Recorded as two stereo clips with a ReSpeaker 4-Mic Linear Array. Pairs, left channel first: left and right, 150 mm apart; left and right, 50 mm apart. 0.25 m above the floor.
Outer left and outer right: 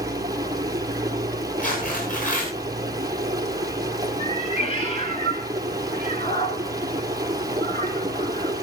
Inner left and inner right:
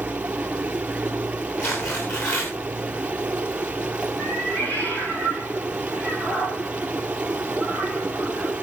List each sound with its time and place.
0.0 s running water: 25° right (ahead or behind), 1.9 m
1.6 s tearing paper: 60° left (ahead or behind), 9.5 m
4.2 s a cat meowing: 35° left (ahead or behind), 5 m